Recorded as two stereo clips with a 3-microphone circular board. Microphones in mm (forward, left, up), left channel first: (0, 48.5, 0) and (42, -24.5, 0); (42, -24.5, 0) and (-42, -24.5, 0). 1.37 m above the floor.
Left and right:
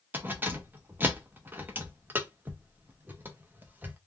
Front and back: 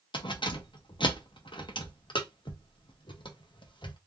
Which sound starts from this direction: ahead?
Keys jangling, at 0.1 s.